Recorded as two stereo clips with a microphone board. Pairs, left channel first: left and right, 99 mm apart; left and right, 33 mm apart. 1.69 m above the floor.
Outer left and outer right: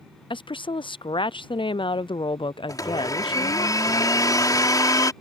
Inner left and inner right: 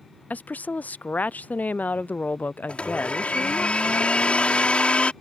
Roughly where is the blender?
Left.